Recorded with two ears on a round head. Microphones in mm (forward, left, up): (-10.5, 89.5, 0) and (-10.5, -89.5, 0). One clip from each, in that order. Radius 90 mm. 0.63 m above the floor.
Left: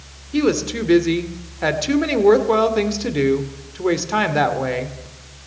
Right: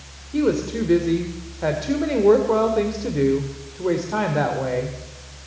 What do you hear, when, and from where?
0.3 s a woman speaking: 65° left (ahead or behind), 1.9 m